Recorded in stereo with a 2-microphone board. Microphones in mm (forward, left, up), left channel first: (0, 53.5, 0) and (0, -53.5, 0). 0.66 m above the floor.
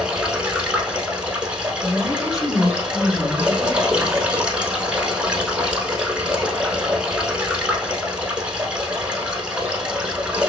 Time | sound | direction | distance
0.0 | running water | 10° right (ahead or behind) | 0.8 m
1.8 | a woman speaking | 30° left (ahead or behind) | 1.3 m